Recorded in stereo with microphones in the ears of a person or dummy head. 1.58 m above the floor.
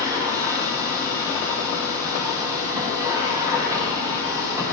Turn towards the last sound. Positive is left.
turn(degrees=-20)  # may be behind; listen again after turning